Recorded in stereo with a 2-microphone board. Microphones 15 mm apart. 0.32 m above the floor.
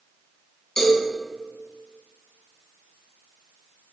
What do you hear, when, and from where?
0.8 s a cowbell: 30° left (ahead or behind), 1.3 m